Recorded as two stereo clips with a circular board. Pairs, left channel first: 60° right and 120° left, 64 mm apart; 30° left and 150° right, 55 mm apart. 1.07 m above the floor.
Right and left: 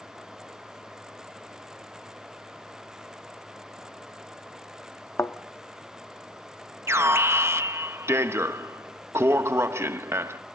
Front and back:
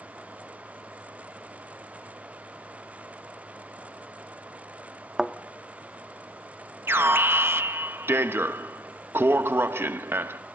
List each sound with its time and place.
5.2 s a thud: 70° right, 0.6 m
6.9 s an alarm: 165° left, 0.7 m